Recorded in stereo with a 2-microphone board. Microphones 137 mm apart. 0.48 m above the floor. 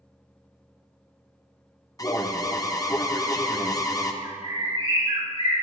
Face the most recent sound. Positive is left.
turn(degrees=-40)  # may be behind; listen again after turning